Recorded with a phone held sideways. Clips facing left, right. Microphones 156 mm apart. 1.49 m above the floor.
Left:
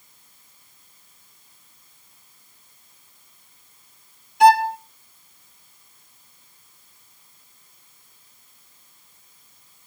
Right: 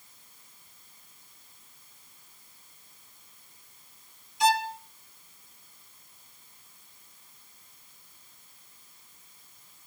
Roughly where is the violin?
Left.